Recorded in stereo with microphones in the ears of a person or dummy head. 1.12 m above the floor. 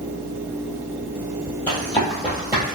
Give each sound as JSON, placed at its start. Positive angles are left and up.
{"t": 1.7, "sound": "running footsteps", "side_deg": 10, "distance_m": 1.6}